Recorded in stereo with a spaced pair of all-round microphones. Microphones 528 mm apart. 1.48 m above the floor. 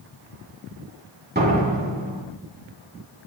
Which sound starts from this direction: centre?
A door slam, at 1.4 s.